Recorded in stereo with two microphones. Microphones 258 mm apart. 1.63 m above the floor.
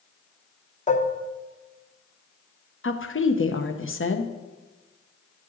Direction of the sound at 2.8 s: 50° left (ahead or behind).